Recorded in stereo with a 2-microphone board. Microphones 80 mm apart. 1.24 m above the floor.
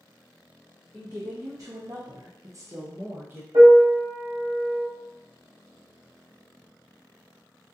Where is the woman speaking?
30° right (ahead or behind), 0.7 m; by 3.4 s 25° right (ahead or behind), 0.9 m.